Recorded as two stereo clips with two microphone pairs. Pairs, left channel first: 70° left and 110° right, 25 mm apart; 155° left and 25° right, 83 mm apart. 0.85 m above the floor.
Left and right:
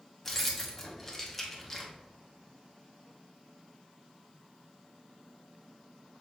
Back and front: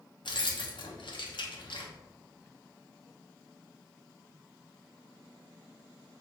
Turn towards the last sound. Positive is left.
turn(degrees=155)